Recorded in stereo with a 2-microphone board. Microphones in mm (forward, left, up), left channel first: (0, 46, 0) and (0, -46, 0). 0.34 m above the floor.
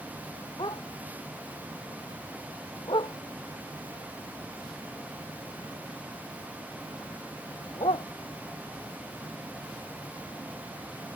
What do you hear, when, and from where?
0.6 s a dog barking: 55° left (ahead or behind); by 8.1 s 75° left (ahead or behind)